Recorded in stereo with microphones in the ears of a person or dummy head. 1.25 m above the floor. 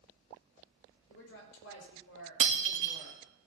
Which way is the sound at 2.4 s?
40° right (ahead or behind).